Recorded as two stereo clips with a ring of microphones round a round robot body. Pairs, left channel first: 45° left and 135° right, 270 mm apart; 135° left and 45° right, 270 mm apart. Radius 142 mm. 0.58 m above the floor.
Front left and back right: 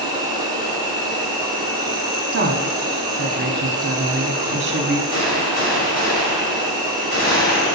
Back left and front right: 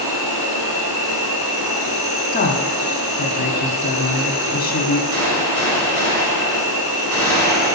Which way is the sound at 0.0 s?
60° right.